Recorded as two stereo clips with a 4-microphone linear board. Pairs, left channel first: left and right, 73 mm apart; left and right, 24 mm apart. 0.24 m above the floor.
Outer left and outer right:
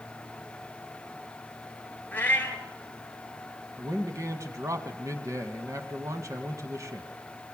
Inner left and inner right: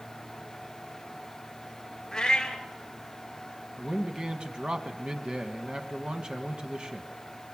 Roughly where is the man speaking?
Right.